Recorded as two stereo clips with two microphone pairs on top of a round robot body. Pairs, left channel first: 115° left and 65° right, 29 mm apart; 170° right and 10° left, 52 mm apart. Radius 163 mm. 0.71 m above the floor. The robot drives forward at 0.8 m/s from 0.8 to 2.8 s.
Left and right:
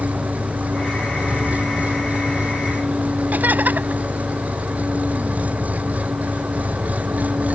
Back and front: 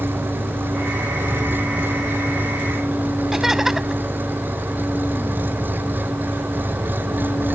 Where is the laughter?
75° right.